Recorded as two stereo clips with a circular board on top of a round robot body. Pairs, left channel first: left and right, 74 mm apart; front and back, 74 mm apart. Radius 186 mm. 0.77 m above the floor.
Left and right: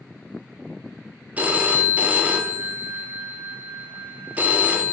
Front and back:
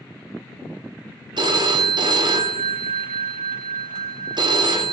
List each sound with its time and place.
1.4 s a phone ringing: 160° right, 1.1 m